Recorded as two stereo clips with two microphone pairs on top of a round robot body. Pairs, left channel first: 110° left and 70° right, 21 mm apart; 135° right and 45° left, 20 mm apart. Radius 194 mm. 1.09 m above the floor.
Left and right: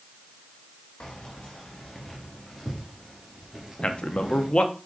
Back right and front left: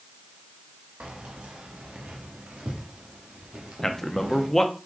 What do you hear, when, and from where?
1.0 s keys jangling: 70° left, 1.2 m; by 4.5 s 15° left, 2 m
3.8 s a man speaking: 145° left, 1.2 m